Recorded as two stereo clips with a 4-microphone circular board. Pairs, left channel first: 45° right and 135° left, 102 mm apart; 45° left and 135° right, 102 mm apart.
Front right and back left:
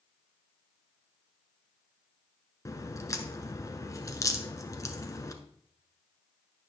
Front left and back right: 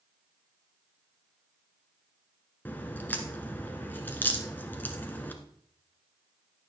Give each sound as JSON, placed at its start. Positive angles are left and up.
{"t": 2.6, "sound": "a crack", "azimuth_deg": -15, "distance_m": 1.1}